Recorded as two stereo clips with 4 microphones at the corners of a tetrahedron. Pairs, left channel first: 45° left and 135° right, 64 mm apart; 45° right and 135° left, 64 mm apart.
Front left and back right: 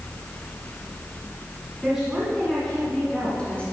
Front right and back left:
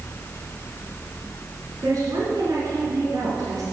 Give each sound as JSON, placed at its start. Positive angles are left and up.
{"t": 1.8, "sound": "a woman speaking", "azimuth_deg": 150, "distance_m": 2.5}